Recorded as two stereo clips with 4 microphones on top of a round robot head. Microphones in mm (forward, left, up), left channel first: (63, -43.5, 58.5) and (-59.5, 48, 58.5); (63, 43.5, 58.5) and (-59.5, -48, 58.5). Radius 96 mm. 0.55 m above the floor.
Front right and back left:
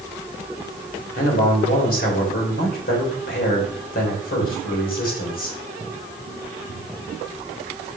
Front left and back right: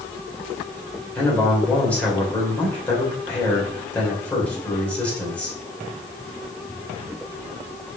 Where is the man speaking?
45° right, 3 m.